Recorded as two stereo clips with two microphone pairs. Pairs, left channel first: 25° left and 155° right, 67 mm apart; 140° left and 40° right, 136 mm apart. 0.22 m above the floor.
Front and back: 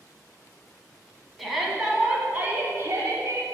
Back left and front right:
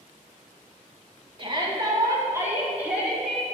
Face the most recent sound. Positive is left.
turn(degrees=-130)